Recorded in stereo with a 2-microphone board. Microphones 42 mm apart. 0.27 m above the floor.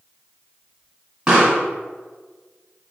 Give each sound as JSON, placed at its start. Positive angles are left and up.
{"t": 1.3, "sound": "a pop", "side_deg": -20, "distance_m": 2.5}